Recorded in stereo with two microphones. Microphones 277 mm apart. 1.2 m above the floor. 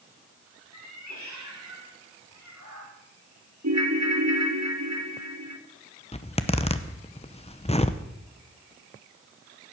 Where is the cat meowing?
75° right (ahead or behind), 2.5 m; by 2.9 s 85° right, 4 m.